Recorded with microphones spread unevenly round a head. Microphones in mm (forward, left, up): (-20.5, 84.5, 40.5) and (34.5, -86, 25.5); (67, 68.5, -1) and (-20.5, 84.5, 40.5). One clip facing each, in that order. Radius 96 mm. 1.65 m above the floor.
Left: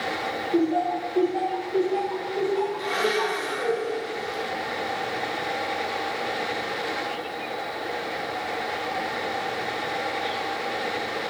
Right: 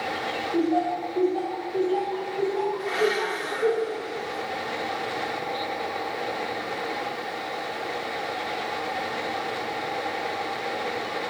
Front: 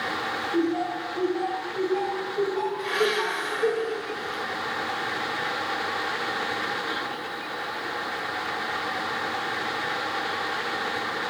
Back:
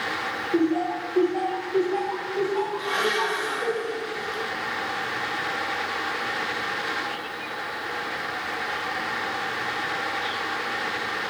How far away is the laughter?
About 1.7 m.